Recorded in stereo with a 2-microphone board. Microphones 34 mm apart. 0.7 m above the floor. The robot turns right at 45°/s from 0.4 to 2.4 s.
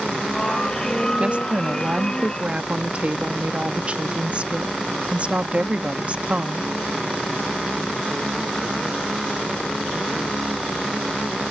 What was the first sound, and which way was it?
A woman speaking, 120° right.